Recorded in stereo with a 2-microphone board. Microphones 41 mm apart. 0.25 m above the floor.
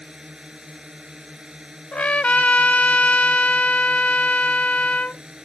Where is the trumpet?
35° left (ahead or behind).